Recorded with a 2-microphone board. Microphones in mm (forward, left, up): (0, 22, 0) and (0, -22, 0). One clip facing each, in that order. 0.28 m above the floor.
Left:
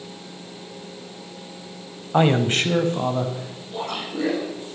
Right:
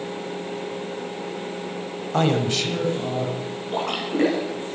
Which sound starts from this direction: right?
A splash, at 3.7 s.